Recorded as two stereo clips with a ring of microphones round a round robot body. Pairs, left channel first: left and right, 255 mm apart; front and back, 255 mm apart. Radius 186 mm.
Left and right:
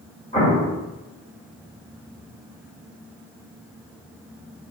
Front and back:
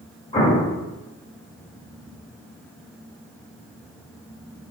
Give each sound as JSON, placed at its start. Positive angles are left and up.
{"t": 0.3, "sound": "an explosion", "azimuth_deg": 50, "distance_m": 1.6}